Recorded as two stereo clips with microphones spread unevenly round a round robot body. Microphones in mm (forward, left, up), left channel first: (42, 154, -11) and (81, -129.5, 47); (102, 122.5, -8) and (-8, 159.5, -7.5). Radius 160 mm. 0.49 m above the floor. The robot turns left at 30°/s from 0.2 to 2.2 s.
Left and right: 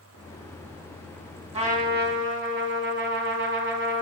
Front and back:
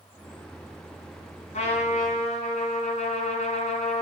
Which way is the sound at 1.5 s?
10° right.